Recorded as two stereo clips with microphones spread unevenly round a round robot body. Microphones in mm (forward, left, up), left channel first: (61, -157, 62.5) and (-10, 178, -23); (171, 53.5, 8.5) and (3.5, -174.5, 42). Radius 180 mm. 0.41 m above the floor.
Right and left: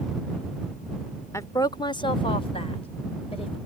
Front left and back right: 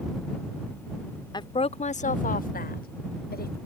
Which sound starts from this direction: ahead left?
A woman speaking, at 1.3 s.